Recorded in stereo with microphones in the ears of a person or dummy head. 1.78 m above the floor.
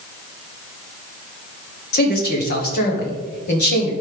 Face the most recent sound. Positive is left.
turn(degrees=50)  # may be behind; listen again after turning